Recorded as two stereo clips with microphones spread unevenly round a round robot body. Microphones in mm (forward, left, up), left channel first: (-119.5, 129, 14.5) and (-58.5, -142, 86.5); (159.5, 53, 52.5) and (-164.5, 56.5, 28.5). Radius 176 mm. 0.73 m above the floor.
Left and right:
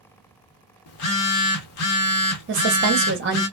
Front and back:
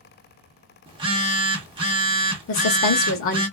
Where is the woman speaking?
30° right, 0.8 m.